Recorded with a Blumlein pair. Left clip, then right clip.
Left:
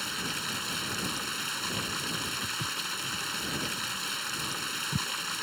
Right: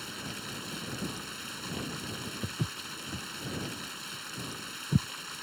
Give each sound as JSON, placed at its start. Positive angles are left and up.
{"t": 0.0, "sound": "running water", "azimuth_deg": 70}
{"t": 2.4, "sound": "footsteps", "azimuth_deg": -70}